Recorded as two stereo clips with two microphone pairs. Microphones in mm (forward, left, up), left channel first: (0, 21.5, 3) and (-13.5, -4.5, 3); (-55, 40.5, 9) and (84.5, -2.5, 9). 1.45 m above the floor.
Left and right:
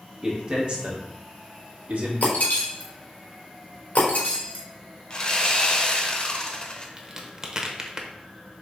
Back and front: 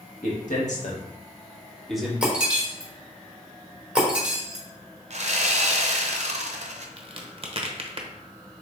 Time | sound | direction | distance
0.2 | a man speaking | straight behind | 1.8 m
2.2 | breaking glass | 65° left | 1.4 m
5.1 | sawing | 10° left | 0.7 m
7.0 | a crack | 55° right | 0.7 m